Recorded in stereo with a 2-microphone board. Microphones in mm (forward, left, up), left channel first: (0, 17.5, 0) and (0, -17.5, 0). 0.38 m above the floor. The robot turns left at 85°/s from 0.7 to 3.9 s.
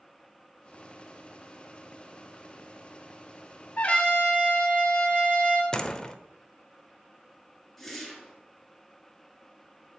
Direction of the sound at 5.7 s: 20° left (ahead or behind).